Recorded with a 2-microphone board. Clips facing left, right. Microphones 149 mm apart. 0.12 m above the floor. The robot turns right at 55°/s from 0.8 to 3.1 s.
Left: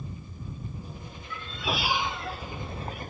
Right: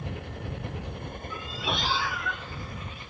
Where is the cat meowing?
20° right; by 3.0 s 75° left.